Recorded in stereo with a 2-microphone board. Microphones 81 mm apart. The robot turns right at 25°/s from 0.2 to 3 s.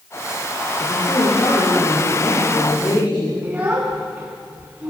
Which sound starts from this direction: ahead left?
A woman speaking, at 0.8 s.